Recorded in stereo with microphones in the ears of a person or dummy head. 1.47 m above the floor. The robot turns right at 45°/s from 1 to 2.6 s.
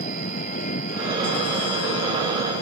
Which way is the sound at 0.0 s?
40° left.